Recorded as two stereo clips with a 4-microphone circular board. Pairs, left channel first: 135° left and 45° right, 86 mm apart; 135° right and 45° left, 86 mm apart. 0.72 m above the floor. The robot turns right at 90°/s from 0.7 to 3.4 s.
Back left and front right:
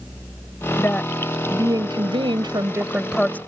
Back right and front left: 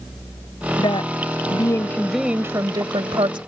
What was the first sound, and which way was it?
A woman speaking, 170° right.